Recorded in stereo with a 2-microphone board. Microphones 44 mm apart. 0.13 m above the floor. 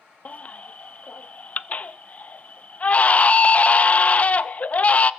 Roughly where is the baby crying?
Left.